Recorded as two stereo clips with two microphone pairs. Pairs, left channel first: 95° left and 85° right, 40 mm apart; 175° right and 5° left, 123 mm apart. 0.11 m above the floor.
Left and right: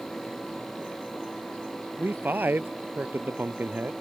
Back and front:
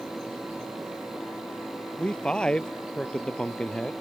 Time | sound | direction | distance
2.0 | a man speaking | 90° right | ?